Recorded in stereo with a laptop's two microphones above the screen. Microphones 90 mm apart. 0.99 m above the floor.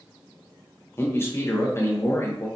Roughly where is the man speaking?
Left.